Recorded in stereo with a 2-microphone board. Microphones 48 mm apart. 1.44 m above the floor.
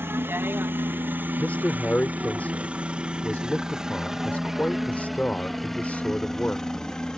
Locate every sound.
0.0 s a helicopter: 55° right (ahead or behind); by 7.2 s 15° left (ahead or behind)
1.4 s a man speaking: 30° left (ahead or behind)